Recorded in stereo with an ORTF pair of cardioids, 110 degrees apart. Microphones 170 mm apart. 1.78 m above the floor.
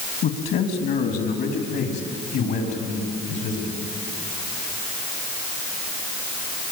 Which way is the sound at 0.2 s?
65° left.